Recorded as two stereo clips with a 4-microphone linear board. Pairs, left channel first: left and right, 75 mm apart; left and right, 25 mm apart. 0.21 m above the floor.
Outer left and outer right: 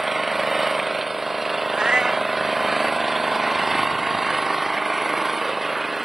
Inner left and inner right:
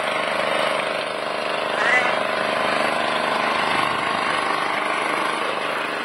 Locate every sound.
0.0 s an engine running: 5° right (ahead or behind)
1.7 s a cat meowing: 10° right (ahead or behind)